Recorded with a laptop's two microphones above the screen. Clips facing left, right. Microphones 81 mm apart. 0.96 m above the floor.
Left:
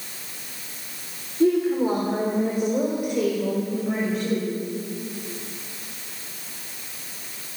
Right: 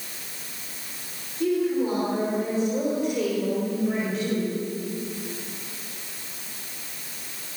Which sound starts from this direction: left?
A woman speaking, at 1.4 s.